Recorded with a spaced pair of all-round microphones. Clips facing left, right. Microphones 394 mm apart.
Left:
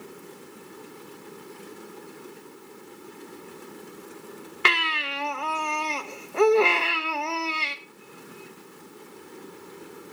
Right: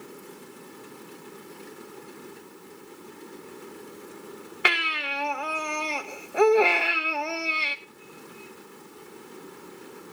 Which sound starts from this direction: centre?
A baby crying, at 4.7 s.